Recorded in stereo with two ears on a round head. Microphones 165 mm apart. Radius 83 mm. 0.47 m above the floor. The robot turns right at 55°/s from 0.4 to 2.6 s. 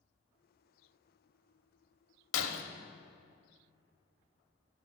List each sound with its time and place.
2.3 s breaking glass: 75° left (ahead or behind), 1.0 m